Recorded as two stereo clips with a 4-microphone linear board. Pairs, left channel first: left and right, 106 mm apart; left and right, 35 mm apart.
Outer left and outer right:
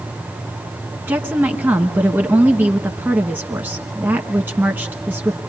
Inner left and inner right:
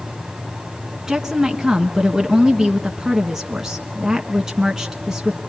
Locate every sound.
1.1 s a woman speaking: 20° right (ahead or behind), 1.2 m